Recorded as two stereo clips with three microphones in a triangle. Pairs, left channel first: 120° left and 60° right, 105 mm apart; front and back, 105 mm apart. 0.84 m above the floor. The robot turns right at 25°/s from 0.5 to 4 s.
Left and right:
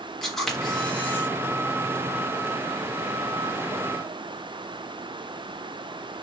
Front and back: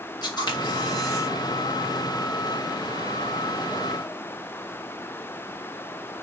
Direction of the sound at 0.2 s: 35° left.